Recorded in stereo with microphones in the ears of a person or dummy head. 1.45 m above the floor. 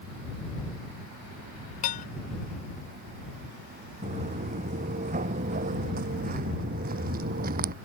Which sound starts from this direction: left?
Dishes clattering, at 1.8 s.